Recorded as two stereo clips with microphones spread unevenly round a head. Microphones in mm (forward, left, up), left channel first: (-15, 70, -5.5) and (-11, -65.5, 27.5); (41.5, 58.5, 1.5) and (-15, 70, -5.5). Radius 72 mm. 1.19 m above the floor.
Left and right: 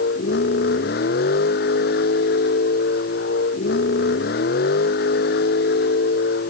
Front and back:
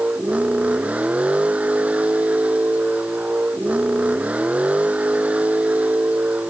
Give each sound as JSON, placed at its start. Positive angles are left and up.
{"t": 0.0, "sound": "a vehicle", "azimuth_deg": 100}